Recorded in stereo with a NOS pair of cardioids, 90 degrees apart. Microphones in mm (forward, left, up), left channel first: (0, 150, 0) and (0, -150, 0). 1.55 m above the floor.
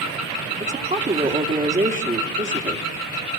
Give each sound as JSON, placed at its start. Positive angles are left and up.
{"t": 0.6, "sound": "a woman speaking", "azimuth_deg": -25, "distance_m": 2.5}